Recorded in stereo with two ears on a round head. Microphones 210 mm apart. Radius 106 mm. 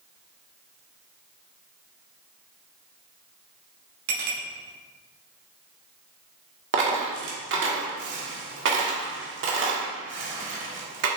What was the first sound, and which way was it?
A clink, 60° right (ahead or behind).